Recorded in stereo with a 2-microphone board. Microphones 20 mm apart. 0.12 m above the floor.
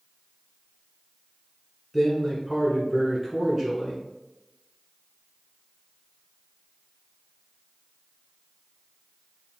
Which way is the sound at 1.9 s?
15° right (ahead or behind).